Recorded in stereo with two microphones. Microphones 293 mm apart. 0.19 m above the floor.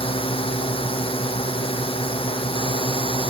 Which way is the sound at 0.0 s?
20° left (ahead or behind).